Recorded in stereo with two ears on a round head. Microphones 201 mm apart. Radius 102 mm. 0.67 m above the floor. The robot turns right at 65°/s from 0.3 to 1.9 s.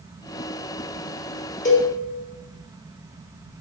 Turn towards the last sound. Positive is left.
turn(degrees=20)  # may be behind; listen again after turning